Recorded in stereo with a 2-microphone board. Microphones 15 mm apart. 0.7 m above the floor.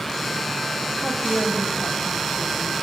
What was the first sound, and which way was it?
A woman speaking, 75° left (ahead or behind).